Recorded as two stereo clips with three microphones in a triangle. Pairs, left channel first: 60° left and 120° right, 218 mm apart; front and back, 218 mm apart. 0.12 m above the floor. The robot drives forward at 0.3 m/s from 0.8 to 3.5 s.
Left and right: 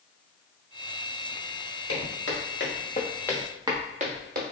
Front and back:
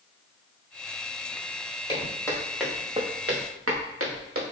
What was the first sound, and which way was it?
Footsteps, 70° left.